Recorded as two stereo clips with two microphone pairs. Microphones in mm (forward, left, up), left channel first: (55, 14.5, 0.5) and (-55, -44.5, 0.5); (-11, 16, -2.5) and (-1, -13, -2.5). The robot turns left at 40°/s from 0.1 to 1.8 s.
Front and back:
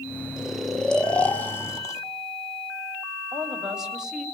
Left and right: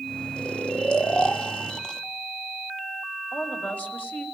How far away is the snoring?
About 1.5 m.